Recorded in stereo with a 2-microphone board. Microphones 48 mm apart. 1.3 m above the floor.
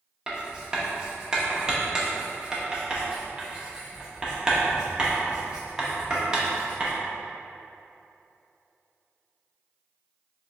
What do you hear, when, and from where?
0.3 s writing: 20° right (ahead or behind), 0.6 m